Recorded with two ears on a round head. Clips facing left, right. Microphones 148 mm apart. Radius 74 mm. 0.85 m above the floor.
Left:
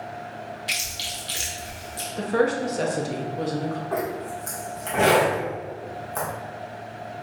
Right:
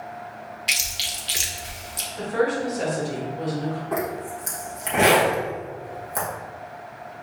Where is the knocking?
No knocking in this recording.